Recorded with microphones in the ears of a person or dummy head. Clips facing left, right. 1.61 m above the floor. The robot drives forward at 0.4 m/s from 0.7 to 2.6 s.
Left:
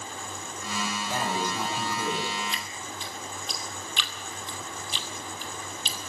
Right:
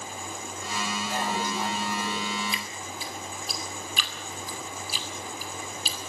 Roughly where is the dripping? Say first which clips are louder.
Right 1 dB; centre.